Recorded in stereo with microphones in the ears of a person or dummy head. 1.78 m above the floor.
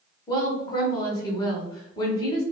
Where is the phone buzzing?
I don't hear a phone buzzing.